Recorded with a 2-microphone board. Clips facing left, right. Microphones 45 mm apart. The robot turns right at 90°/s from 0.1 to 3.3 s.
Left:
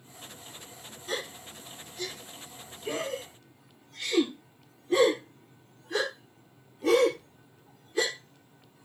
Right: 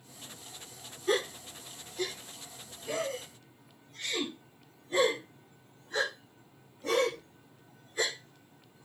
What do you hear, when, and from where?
1.1 s a gasp: 70° right (ahead or behind), 3 m; by 8.8 s 85° left, 3 m